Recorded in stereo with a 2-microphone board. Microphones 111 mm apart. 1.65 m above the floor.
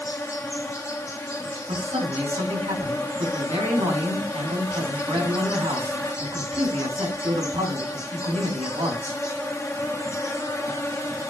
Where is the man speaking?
70° right (ahead or behind), 7 m.